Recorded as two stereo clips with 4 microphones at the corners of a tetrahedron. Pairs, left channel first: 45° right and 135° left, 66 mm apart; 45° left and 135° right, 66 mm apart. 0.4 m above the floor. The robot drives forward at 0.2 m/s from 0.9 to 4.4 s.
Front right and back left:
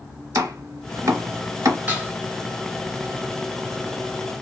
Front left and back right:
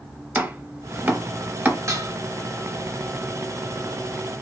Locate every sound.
0.3 s chopping: 160° left, 0.8 m; by 1.8 s 165° left, 0.9 m
1.9 s dishes clattering: 165° right, 1.1 m